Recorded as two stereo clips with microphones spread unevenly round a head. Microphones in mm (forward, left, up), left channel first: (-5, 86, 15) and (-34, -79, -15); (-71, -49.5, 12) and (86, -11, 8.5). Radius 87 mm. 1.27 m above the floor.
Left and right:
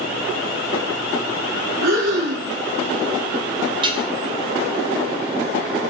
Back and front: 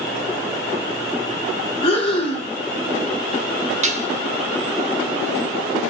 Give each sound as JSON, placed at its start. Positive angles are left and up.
{"t": 1.8, "sound": "breathing", "azimuth_deg": -110, "distance_m": 3.0}
{"t": 3.8, "sound": "dishes clattering", "azimuth_deg": -35, "distance_m": 1.5}